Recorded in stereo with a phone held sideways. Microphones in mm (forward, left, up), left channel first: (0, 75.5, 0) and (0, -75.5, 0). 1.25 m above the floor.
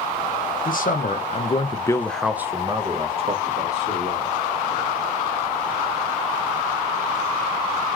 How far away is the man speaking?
About 0.8 m.